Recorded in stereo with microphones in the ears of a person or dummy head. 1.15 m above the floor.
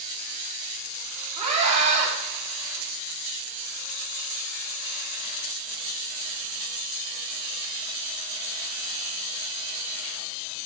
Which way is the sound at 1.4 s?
35° right (ahead or behind).